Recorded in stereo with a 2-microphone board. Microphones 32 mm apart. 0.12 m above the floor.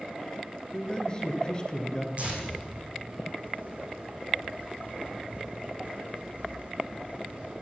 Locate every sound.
0.7 s a man speaking: 25° left (ahead or behind), 2.0 m
2.2 s tearing paper: 45° right (ahead or behind), 3.5 m